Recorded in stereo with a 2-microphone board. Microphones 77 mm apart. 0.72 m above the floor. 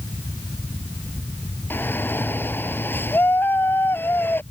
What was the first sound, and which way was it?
A shout, 25° left (ahead or behind).